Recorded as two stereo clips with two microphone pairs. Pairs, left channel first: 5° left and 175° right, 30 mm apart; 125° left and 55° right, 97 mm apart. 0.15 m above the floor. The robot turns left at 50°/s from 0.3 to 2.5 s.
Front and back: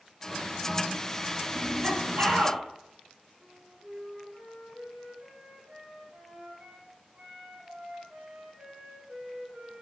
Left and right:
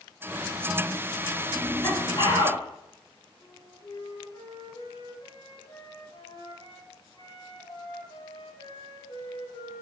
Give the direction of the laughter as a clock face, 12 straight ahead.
5 o'clock.